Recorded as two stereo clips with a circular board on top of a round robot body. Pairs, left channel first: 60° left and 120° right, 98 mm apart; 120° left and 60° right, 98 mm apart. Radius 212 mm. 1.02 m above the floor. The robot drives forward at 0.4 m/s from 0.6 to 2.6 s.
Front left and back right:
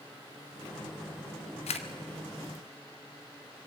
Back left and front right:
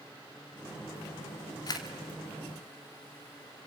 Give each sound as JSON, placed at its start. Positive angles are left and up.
{"t": 1.7, "sound": "a camera shutter", "azimuth_deg": 70, "distance_m": 0.9}